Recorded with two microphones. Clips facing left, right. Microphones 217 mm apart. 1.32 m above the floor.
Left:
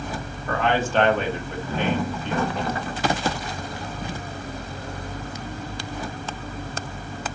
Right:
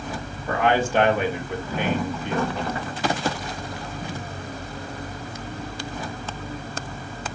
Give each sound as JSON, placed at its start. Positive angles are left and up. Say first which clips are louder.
{"t": 0.5, "sound": "a man speaking", "louder": "right 2 dB", "side_deg": -15, "distance_m": 1.4}